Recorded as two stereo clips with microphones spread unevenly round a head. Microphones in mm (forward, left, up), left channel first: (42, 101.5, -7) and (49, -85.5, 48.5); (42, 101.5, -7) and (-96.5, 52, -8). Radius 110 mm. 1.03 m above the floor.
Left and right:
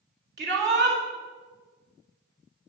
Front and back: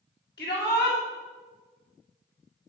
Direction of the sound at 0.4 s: 50° right.